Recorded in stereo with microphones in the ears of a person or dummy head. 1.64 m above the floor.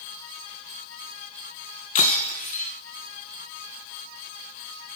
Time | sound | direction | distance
1.9 | breaking glass | 40° left (ahead or behind) | 2.5 m